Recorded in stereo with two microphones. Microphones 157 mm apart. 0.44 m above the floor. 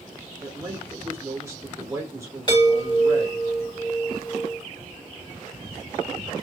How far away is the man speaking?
About 0.9 m.